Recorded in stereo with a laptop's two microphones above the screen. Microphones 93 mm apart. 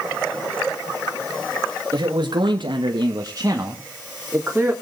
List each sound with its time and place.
1.9 s a man speaking: 45° right (ahead or behind), 1.8 m; by 4.7 s 15° right (ahead or behind), 3 m